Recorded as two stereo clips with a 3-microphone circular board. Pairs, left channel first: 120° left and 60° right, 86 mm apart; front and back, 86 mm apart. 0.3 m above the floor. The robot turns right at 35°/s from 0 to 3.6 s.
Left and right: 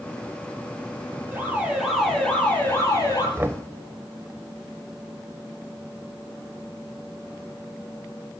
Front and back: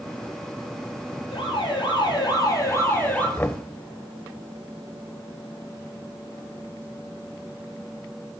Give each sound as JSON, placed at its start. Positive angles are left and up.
{"t": 1.3, "sound": "an alarm", "azimuth_deg": 10, "distance_m": 7.0}
{"t": 3.4, "sound": "knocking", "azimuth_deg": -40, "distance_m": 0.8}